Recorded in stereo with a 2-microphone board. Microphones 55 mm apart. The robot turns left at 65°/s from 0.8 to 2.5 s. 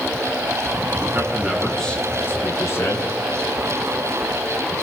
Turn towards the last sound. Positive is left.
turn(degrees=125)